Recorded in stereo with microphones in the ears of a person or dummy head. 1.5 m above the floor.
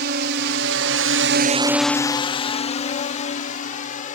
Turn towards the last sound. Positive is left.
turn(degrees=45)  # may be behind; listen again after turning